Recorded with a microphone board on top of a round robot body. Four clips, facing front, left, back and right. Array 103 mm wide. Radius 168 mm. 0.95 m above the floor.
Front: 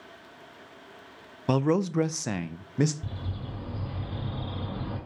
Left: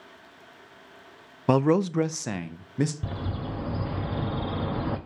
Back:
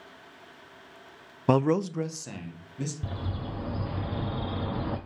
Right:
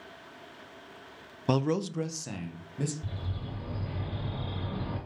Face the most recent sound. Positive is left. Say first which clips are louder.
# left 7 dB, back 3 dB
turn(degrees=110)